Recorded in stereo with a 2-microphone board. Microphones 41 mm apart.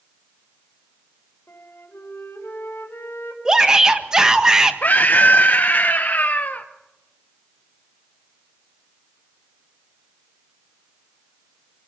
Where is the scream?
45° left (ahead or behind), 0.7 m.